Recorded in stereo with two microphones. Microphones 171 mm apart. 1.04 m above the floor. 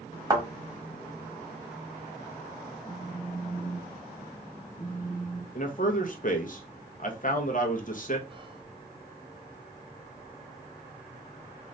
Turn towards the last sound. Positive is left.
turn(degrees=-30)  # may be behind; listen again after turning